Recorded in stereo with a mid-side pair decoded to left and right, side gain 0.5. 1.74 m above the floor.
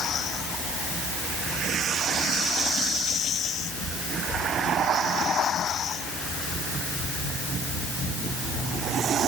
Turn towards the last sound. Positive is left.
No sound to turn to.